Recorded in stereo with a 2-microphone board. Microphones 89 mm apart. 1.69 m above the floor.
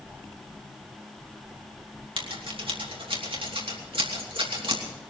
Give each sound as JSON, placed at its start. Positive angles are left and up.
{"t": 2.2, "sound": "scissors", "side_deg": -90, "distance_m": 3.0}